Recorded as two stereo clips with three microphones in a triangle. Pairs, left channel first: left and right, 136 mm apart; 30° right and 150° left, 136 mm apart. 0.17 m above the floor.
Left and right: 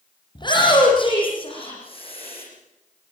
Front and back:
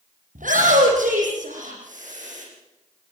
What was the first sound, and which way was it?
A shout, 145° left.